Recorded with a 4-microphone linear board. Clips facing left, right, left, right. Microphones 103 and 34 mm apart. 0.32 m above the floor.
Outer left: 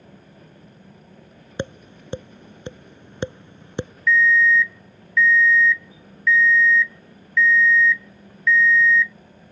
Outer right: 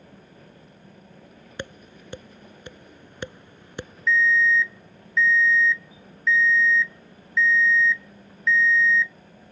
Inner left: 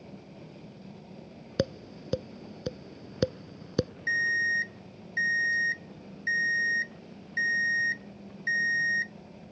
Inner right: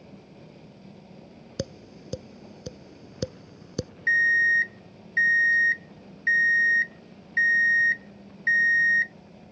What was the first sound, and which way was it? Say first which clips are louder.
Tapping: outer left 7 dB, inner left 5 dB; 25° left (ahead or behind).